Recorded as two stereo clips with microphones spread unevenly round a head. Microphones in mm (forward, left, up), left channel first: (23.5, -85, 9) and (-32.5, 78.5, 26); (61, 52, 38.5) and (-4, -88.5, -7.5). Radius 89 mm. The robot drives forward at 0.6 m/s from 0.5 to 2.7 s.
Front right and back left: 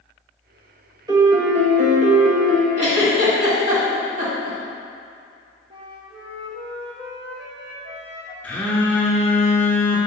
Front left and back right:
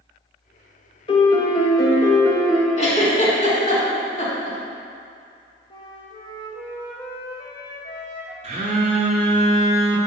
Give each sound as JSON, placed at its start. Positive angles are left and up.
{"t": 1.1, "sound": "a piano", "azimuth_deg": 50, "distance_m": 0.8}
{"t": 2.8, "sound": "a giggle", "azimuth_deg": 75, "distance_m": 1.6}
{"t": 5.7, "sound": "a flute", "azimuth_deg": 65, "distance_m": 0.7}
{"t": 8.4, "sound": "a phone buzzing", "azimuth_deg": -155, "distance_m": 0.9}